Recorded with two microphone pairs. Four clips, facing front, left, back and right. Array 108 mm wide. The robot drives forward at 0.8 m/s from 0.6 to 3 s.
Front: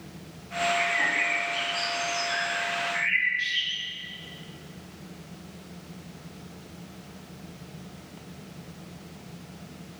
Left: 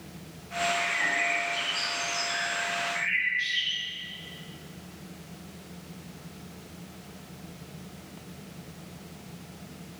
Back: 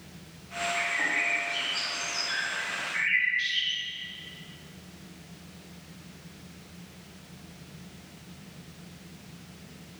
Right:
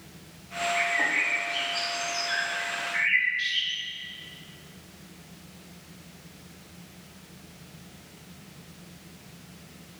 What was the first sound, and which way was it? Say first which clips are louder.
A bird: right 2 dB, front 4 dB; 90° right.